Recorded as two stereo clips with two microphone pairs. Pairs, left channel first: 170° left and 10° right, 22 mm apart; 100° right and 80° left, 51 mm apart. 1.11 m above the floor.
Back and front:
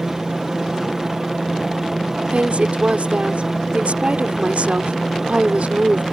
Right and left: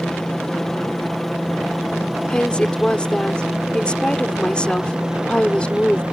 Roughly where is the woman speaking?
Ahead right.